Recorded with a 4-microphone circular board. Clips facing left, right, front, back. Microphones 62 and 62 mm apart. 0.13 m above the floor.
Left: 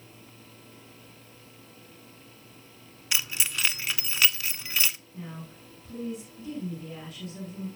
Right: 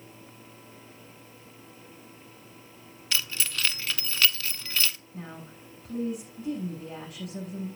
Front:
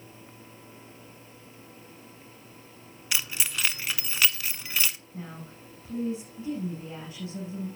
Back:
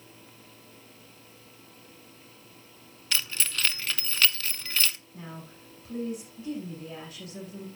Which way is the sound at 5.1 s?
65° right.